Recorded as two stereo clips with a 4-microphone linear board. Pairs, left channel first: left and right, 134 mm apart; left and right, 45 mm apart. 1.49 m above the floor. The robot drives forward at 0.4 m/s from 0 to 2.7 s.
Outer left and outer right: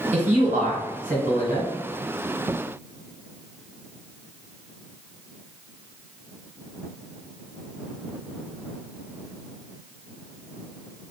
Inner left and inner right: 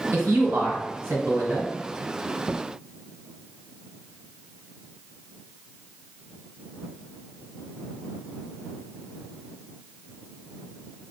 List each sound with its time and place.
0.1 s a man speaking: 60° right (ahead or behind), 1.4 m; by 1.7 s 85° right, 1.3 m